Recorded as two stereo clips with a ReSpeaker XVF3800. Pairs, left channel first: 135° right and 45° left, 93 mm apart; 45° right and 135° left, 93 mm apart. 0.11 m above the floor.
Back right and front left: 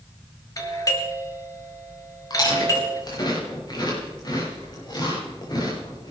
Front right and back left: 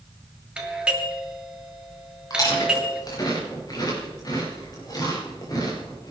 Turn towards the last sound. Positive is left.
turn(degrees=-95)